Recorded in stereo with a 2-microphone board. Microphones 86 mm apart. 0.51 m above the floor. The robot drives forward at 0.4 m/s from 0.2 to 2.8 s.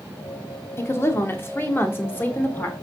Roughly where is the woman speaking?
Left.